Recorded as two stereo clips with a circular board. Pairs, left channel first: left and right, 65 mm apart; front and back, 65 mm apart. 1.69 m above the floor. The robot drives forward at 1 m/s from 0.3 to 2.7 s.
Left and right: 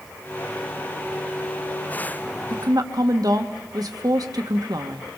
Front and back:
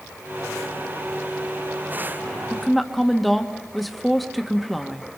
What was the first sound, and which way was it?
A woman speaking, 85° right.